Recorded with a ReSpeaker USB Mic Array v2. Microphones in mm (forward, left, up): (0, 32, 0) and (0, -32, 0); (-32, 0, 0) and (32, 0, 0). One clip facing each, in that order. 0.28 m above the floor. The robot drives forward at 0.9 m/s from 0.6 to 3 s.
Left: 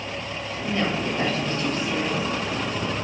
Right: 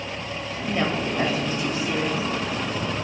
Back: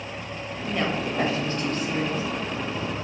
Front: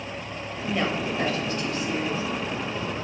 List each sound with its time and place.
0.7 s a woman speaking: 65° right, 0.9 m; by 2.2 s 170° right, 1.6 m